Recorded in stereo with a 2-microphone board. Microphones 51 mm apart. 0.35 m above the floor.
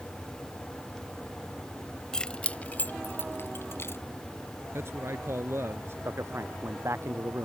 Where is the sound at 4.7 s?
60° right (ahead or behind).